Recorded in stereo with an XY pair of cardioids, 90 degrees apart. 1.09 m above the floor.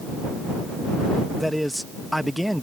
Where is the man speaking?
Straight ahead.